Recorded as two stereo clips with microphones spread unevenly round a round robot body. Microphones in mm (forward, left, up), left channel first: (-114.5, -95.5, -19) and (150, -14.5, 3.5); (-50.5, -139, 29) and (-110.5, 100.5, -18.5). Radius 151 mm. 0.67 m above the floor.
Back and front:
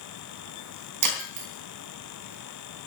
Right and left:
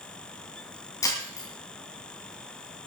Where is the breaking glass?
5° left, 3 m.